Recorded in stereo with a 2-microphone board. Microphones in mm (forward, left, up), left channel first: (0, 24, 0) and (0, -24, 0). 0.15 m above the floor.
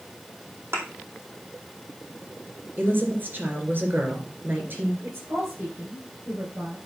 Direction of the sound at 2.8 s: 45° right (ahead or behind).